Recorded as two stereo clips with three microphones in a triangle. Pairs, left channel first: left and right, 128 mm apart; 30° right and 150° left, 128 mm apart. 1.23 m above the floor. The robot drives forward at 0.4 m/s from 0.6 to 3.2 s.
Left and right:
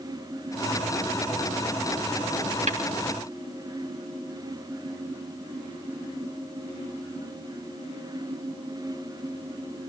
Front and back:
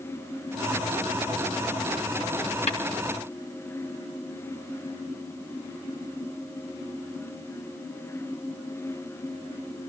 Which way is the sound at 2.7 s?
65° right.